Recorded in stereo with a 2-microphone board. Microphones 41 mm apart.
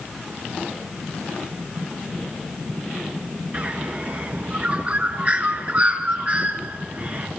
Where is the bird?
35° right (ahead or behind), 2.5 m.